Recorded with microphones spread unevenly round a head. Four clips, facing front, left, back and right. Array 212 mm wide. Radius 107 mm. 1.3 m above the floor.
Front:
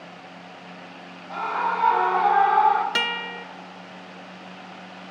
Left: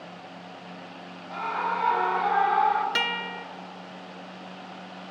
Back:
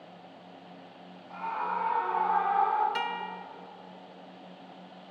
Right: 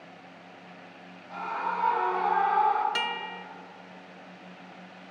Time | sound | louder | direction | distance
1.3 | a scream | left 3 dB, front 7 dB | 20° left | 3.5 m
3.0 | a guitar | left 2 dB, front 4 dB | 15° left | 1.0 m